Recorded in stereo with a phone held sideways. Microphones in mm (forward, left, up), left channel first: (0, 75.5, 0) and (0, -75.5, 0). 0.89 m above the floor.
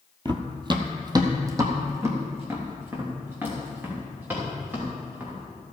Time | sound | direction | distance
0.2 | running footsteps | 30° right (ahead or behind) | 1.0 m